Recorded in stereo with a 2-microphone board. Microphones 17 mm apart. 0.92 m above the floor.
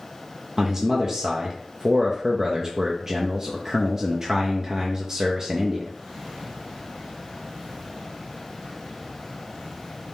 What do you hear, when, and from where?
0.6 s a man speaking: 30° right (ahead or behind), 0.5 m